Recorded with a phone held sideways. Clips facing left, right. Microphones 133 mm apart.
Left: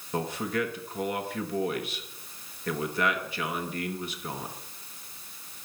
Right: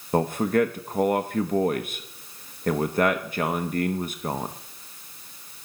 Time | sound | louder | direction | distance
0.1 | a man speaking | right 8 dB | 50° right (ahead or behind) | 0.9 m